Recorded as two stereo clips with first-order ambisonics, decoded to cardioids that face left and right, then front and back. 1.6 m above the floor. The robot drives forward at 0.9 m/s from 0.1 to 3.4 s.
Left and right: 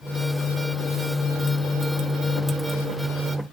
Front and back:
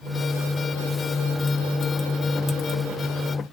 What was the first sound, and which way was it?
Only background noise.